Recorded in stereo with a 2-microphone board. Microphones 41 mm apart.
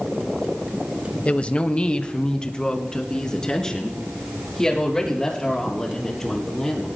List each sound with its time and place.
1.2 s a woman speaking: 30° left (ahead or behind), 1.0 m; by 6.9 s 10° left (ahead or behind), 7 m